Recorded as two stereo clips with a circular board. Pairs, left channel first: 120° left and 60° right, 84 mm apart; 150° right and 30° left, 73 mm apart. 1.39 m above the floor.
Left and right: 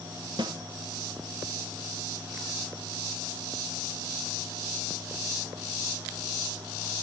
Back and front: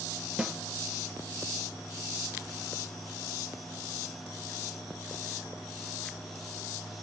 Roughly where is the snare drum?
Ahead right.